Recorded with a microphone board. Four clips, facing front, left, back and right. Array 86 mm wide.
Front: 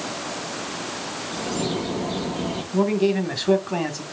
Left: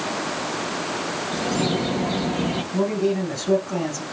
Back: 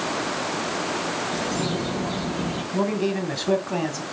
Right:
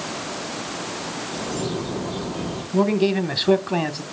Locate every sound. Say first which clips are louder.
1.3 s a bird: left 4 dB, front 4 dB; 95° left, 3.5 m
2.7 s a man speaking: right 4 dB, front 4 dB; 85° right, 1.7 m